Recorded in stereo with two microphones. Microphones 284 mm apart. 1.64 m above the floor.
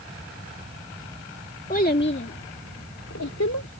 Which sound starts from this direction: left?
A child speaking, at 1.7 s.